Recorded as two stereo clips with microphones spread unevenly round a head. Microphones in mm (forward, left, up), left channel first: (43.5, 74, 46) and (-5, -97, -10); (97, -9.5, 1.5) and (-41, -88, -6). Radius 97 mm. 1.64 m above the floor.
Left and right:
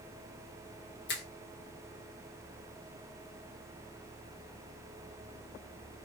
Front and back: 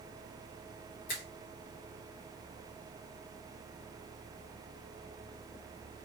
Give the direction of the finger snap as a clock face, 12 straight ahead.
10 o'clock.